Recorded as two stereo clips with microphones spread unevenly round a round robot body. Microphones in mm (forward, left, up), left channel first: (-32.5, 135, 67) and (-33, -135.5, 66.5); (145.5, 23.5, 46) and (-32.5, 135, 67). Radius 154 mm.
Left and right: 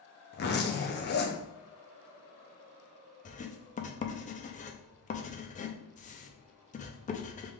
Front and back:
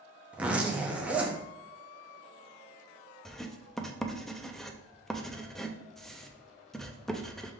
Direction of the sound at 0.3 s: 60° left.